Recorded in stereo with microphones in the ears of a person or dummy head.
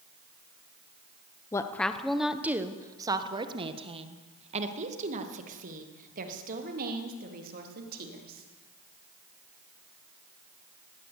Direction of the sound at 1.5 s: 15° left (ahead or behind).